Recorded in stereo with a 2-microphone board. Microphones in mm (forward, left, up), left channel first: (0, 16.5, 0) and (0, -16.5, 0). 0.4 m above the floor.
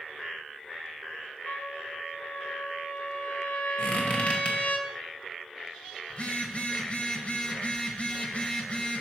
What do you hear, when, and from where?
1.4 s a trumpet: 60° left (ahead or behind), 0.7 m
3.8 s a squeak: 35° left (ahead or behind), 1.2 m
6.1 s a phone buzzing: 40° left (ahead or behind), 0.7 m